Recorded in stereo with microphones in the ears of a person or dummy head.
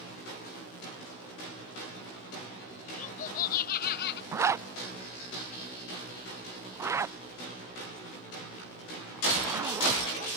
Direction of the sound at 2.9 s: 45° left (ahead or behind).